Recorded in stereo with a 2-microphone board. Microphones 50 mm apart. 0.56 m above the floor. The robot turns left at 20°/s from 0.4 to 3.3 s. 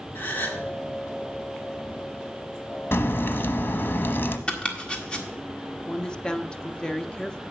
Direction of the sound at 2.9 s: 50° left (ahead or behind).